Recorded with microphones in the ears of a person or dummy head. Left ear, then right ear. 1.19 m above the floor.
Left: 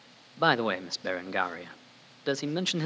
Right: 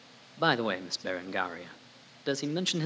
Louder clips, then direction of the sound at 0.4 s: Left 2 dB; 15° left (ahead or behind).